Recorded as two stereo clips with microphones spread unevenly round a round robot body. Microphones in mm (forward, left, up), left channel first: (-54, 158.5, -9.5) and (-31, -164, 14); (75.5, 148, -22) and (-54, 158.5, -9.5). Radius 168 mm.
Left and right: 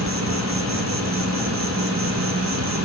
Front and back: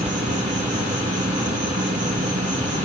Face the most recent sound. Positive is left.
turn(degrees=-135)